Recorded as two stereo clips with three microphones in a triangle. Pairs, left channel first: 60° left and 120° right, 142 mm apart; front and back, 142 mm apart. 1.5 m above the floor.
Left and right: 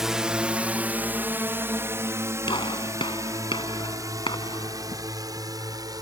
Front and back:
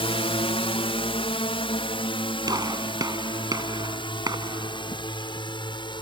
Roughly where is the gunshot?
Behind left.